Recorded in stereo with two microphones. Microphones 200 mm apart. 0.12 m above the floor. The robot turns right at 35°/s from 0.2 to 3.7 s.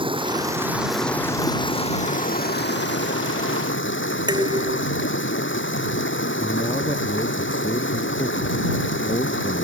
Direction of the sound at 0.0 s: 25° right.